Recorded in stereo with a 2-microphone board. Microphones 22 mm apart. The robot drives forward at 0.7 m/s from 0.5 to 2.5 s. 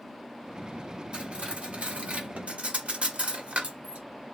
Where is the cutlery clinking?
55° right (ahead or behind), 1.5 m; by 4.0 s 80° right, 1.3 m.